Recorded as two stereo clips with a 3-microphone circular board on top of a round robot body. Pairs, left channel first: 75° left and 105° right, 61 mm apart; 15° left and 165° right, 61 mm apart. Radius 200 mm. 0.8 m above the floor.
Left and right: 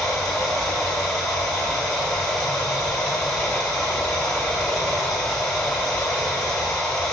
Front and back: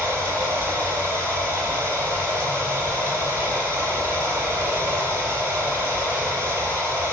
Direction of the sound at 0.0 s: 155° left.